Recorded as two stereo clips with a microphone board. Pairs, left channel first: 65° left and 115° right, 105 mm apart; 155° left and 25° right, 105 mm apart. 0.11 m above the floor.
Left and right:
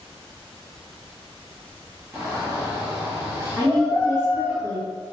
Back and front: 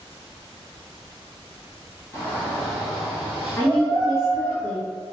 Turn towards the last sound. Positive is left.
turn(degrees=-145)